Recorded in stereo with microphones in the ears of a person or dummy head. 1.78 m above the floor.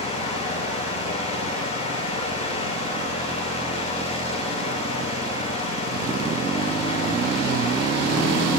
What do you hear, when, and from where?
0.0 s a fan: 35° left (ahead or behind), 8 m